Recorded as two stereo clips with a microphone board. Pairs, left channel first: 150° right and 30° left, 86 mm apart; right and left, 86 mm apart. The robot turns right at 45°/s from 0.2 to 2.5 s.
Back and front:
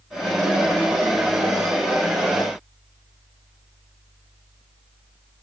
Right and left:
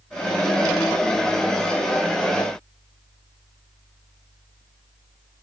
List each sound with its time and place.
Only background noise.